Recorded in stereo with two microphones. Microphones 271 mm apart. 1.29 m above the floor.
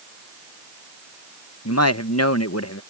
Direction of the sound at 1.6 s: 65° left (ahead or behind).